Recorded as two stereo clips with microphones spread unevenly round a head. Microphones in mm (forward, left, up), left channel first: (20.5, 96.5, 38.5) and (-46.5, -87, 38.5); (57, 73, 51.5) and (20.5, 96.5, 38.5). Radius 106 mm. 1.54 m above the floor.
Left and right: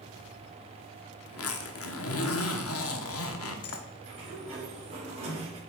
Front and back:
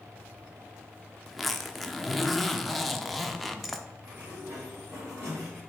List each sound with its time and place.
1.3 s a zipper: 50° left, 0.8 m
4.0 s a sliding door: 170° right, 3 m